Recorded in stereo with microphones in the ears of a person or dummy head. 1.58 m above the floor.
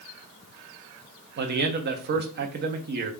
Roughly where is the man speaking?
Right.